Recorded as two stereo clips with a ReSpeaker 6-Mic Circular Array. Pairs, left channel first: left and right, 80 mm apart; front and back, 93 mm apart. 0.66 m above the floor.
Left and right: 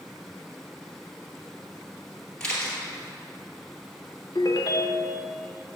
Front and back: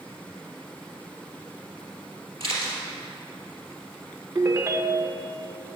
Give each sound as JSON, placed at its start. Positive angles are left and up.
{"t": 2.4, "sound": "a camera shutter", "azimuth_deg": 170, "distance_m": 2.5}
{"t": 4.3, "sound": "a ringtone", "azimuth_deg": 125, "distance_m": 0.5}